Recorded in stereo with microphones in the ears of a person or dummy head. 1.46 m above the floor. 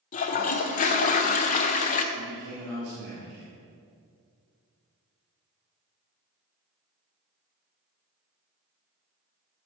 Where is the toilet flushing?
40° left (ahead or behind), 0.6 m.